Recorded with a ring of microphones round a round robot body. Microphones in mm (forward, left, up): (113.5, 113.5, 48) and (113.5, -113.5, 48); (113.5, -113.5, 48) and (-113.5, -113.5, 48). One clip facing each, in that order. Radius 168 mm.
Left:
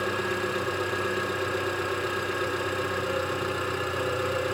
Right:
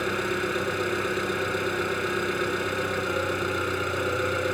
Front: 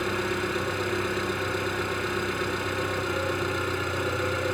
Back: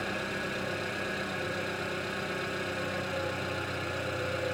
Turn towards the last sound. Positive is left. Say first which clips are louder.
# right 1 dB, front 8 dB
turn(degrees=-20)